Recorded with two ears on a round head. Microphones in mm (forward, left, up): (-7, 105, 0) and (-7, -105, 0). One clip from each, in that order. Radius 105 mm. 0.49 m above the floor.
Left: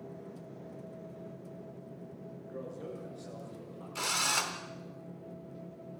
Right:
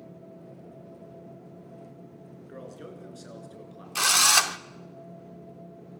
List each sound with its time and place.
2.5 s a man speaking: 75° right (ahead or behind), 6 m; by 3.9 s 85° right, 7 m
4.0 s a drill: 45° right (ahead or behind), 0.8 m